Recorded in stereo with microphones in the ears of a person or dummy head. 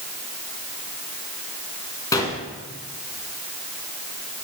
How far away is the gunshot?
About 2.5 m.